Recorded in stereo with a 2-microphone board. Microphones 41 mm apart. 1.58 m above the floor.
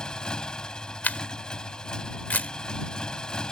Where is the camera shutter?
45° left (ahead or behind).